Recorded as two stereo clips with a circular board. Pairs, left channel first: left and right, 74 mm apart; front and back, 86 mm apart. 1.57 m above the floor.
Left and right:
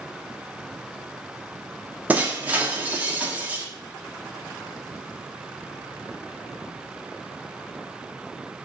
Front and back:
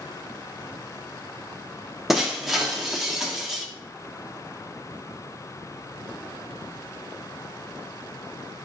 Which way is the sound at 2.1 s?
100° right.